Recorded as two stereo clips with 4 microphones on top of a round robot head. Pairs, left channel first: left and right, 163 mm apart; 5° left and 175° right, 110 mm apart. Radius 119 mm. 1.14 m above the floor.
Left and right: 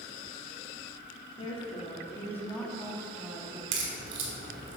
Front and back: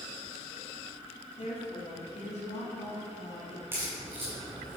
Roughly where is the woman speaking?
Ahead left.